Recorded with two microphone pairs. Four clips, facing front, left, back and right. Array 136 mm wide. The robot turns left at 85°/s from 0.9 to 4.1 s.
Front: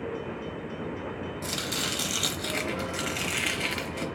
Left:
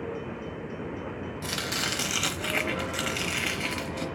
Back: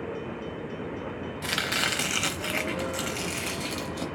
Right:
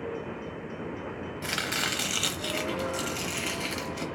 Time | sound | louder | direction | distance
1.4 | chopping | right 2 dB, back 6 dB | 150° right | 0.8 m